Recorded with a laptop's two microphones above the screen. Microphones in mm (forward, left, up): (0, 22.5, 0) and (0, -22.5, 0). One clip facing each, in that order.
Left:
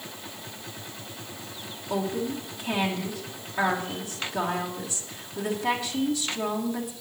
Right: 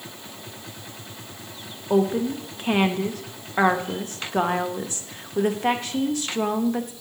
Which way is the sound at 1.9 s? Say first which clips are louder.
Right 7 dB; 50° right (ahead or behind).